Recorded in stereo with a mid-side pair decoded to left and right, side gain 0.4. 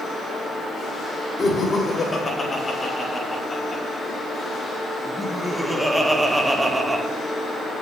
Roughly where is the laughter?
Ahead left.